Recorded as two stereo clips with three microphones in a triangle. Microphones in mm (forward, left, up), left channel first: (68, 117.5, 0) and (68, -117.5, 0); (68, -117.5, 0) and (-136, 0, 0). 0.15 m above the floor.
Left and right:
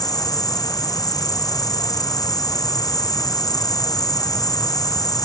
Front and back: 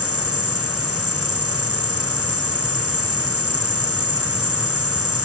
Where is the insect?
165° left.